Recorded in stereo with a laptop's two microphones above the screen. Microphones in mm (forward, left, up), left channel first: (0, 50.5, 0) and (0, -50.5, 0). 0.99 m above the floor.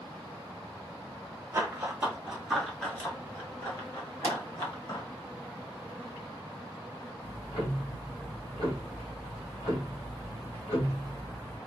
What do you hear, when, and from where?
1.5 s running footsteps: 20° right (ahead or behind), 1.3 m; by 5.0 s 50° left (ahead or behind), 1.7 m
4.2 s a pop: 80° left, 1.5 m
7.2 s ticking: 75° left (ahead or behind), 1.8 m